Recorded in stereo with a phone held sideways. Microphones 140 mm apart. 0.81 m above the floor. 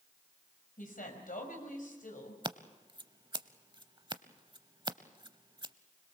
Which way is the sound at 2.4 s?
35° right (ahead or behind).